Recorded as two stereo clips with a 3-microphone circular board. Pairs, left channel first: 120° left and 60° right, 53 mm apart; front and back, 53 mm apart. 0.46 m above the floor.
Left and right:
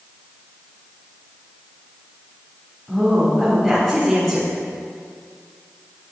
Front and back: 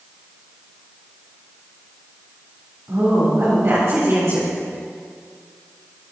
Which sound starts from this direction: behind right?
A woman speaking, at 2.9 s.